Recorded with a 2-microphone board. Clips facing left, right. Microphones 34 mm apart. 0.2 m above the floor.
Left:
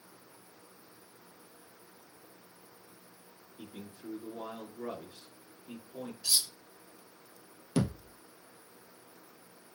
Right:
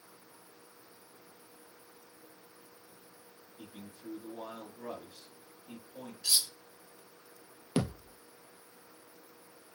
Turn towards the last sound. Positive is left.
turn(degrees=-25)  # may be behind; listen again after turning